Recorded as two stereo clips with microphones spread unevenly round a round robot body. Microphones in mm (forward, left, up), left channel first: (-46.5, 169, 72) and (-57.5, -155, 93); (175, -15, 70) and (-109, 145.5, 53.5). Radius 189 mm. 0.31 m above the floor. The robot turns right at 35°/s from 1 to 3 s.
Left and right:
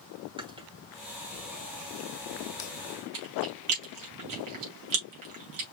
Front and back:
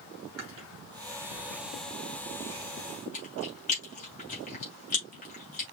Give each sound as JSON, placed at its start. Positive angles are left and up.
{"t": 0.4, "sound": "chewing", "azimuth_deg": -165, "distance_m": 2.5}